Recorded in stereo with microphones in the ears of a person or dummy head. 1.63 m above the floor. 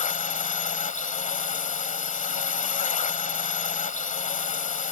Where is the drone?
30° left (ahead or behind).